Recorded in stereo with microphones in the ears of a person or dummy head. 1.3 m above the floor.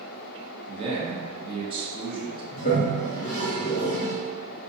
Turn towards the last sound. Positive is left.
turn(degrees=45)  # may be behind; listen again after turning